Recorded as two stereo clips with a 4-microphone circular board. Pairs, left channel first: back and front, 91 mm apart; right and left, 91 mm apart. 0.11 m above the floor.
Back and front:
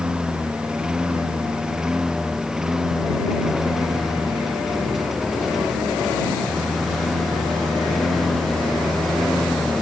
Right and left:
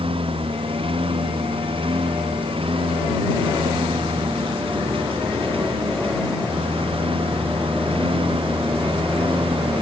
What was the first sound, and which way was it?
A lawn mower, 80° left.